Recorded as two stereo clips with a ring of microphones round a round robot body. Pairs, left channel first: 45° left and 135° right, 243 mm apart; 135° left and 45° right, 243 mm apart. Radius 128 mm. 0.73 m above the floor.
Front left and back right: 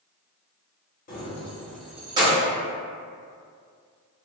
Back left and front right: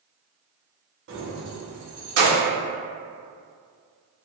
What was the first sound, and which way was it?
Keys jangling, 10° right.